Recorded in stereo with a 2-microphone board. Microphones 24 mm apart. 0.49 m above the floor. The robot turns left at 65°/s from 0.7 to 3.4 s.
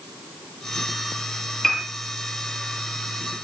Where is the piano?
20° left (ahead or behind), 5.5 m; by 1.8 s 30° left (ahead or behind), 5.5 m.